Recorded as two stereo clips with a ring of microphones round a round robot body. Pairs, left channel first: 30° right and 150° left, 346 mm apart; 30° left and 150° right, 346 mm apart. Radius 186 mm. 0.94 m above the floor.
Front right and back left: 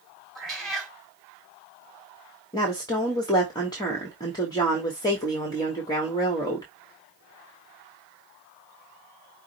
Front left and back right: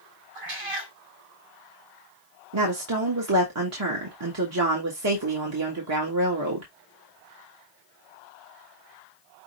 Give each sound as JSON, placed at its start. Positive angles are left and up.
{"t": 0.3, "sound": "a cat meowing", "azimuth_deg": -120, "distance_m": 2.5}
{"t": 2.5, "sound": "a woman speaking", "azimuth_deg": -110, "distance_m": 1.4}